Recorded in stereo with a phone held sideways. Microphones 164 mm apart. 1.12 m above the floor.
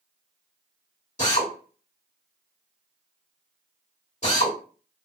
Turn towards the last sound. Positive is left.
turn(degrees=40)  # may be behind; listen again after turning